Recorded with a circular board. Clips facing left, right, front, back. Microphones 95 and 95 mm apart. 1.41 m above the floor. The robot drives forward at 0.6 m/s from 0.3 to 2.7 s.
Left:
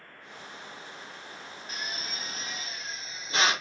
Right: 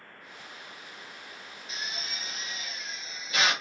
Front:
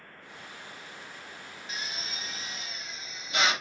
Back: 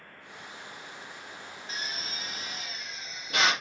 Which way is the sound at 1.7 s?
130° left.